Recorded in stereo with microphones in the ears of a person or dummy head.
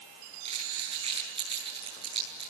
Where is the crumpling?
30° right (ahead or behind), 9.5 m.